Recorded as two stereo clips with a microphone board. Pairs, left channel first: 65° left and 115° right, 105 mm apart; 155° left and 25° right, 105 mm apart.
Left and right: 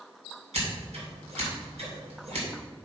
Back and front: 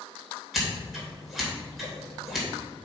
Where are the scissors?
110° right, 3 m.